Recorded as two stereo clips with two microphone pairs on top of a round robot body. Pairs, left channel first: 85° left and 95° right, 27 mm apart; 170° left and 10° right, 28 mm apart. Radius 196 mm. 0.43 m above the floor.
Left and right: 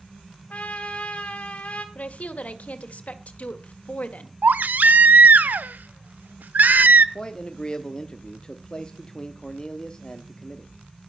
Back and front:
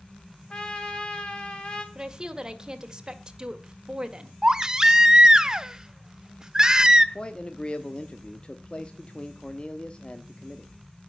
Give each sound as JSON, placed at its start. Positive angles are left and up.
{"t": 0.5, "sound": "a trumpet", "azimuth_deg": 120, "distance_m": 2.5}
{"t": 1.9, "sound": "a woman speaking", "azimuth_deg": 60, "distance_m": 2.0}
{"t": 4.4, "sound": "a baby crying", "azimuth_deg": -75, "distance_m": 0.6}
{"t": 7.2, "sound": "a man speaking", "azimuth_deg": 135, "distance_m": 1.3}